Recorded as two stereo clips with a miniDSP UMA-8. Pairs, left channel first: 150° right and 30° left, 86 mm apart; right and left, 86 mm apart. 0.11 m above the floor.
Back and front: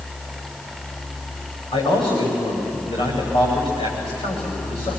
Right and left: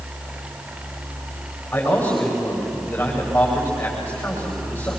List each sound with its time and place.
1.7 s a man speaking: 155° right, 9 m